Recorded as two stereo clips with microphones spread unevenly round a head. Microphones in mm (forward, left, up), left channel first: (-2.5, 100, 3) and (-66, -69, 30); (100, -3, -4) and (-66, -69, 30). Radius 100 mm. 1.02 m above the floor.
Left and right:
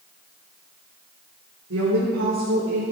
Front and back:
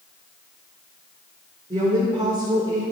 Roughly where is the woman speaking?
Right.